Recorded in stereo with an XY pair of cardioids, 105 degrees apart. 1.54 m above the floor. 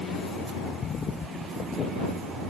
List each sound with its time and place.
Only background noise.